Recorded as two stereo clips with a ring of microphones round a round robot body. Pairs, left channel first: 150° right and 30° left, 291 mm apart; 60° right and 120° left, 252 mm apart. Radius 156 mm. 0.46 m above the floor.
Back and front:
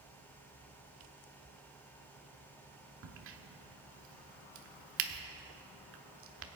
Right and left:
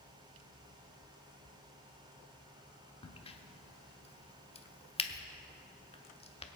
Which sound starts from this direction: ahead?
A crack, at 3.0 s.